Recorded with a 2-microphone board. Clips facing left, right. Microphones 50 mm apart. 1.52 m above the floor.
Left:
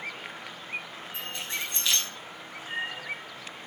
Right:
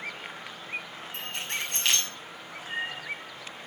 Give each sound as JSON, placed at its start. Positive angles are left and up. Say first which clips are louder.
{"t": 1.1, "sound": "keys jangling", "louder": "right 1 dB", "side_deg": -70, "distance_m": 7.0}